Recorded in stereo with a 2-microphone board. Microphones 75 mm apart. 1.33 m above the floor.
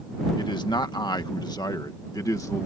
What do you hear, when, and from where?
0.4 s a man speaking: 75° left (ahead or behind); by 2.7 s 45° left (ahead or behind)